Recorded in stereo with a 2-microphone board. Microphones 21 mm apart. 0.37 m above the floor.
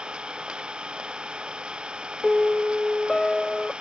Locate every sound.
0.0 s an engine running: 55° right (ahead or behind)
2.2 s a piano: 25° left (ahead or behind)